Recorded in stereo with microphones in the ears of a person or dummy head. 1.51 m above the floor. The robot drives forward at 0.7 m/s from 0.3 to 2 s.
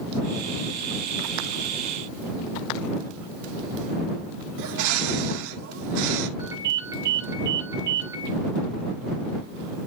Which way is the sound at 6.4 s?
20° right (ahead or behind).